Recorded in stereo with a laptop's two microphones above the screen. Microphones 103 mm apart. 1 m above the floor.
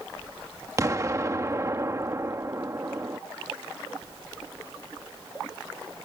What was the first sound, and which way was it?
An explosion, 30° right (ahead or behind).